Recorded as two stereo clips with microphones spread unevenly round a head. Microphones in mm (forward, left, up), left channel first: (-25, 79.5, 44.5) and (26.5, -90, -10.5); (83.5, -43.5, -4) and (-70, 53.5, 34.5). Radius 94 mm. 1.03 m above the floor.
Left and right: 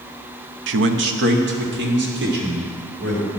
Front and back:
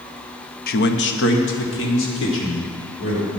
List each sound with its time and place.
0.7 s a man speaking: 70° right, 0.7 m; by 3.3 s 45° right, 3.5 m